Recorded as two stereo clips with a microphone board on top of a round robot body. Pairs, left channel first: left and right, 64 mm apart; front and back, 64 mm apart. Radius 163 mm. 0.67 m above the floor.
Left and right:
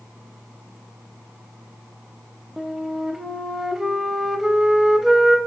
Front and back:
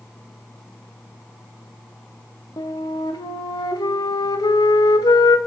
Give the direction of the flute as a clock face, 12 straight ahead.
12 o'clock.